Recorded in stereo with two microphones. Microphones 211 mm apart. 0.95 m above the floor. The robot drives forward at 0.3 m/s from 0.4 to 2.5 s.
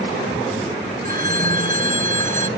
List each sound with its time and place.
1.0 s a phone ringing: 40° right (ahead or behind)